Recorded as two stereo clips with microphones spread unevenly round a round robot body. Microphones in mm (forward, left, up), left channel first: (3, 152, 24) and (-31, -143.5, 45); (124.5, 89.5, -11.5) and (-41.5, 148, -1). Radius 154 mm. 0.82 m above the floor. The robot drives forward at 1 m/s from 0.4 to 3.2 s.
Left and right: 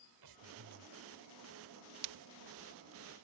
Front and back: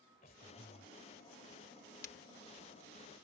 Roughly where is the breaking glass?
Right.